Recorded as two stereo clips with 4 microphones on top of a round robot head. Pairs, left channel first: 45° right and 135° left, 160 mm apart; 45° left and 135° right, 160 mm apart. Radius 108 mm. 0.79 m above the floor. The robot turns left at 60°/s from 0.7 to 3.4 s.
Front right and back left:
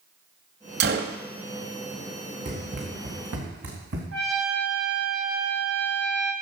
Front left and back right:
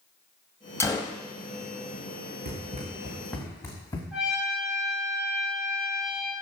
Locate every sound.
0.8 s a gunshot: 115° left, 0.8 m; by 1.2 s 90° left, 0.8 m
2.5 s running footsteps: 170° right, 3.5 m; by 4.0 s 115° left, 3.5 m
4.1 s a trumpet: 135° left, 5 m